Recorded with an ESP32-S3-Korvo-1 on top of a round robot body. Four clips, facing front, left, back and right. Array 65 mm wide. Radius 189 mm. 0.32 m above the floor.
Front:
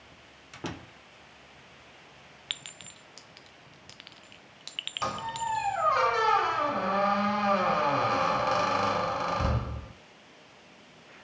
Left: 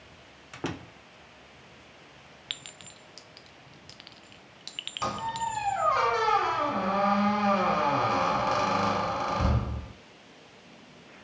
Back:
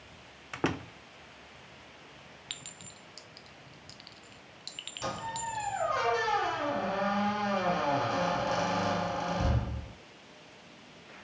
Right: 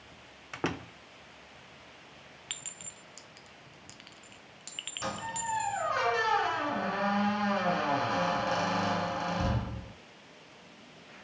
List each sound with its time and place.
0.5 s a door slam: 155° right, 0.8 m
2.5 s a clink: 10° left, 0.5 m
5.0 s a squeak: 35° left, 1.6 m